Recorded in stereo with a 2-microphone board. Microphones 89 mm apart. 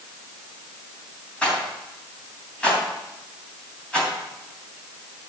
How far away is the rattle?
About 3 m.